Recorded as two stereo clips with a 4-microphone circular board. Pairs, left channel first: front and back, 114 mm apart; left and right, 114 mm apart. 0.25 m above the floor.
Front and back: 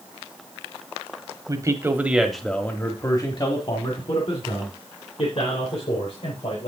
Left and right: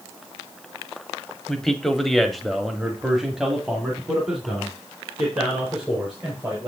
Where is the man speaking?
175° left, 1.3 m; by 6.7 s 5° right, 4 m.